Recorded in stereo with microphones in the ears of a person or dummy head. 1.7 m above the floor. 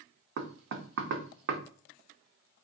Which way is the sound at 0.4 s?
60° right (ahead or behind).